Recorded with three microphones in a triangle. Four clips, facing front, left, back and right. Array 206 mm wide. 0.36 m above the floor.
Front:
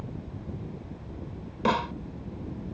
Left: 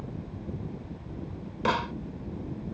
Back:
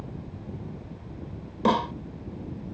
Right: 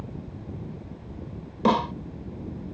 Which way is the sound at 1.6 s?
115° right.